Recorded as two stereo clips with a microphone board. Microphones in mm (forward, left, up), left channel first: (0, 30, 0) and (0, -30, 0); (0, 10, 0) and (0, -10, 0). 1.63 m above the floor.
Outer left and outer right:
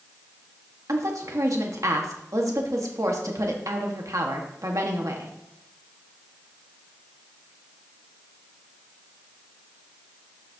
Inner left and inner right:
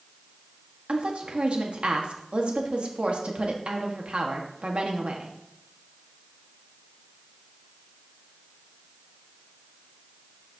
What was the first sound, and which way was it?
A woman speaking, 65° right (ahead or behind).